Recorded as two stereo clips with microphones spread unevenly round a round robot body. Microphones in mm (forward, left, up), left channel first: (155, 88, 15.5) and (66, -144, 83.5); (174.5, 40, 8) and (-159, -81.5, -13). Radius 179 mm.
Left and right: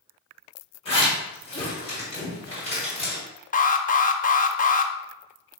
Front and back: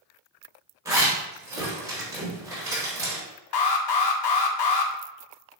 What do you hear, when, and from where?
0.8 s a zipper: 120° left, 1.8 m
3.5 s an alarm: 30° left, 0.6 m